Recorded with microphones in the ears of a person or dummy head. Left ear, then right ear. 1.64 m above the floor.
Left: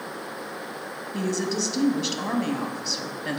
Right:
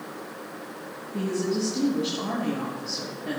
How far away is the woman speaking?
About 2 m.